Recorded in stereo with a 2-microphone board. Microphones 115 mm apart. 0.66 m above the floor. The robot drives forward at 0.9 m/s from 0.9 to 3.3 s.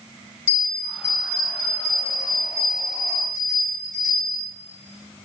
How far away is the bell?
About 1.2 m.